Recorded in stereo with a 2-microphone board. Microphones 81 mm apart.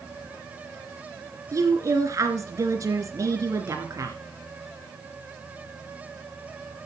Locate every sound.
1.5 s a woman speaking: 40° right (ahead or behind), 2.5 m